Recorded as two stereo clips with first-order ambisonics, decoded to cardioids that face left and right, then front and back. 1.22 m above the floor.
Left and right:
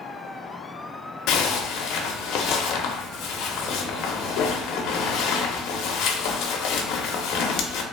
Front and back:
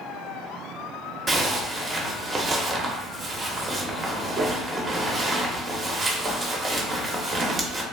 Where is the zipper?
110° left, 0.5 m.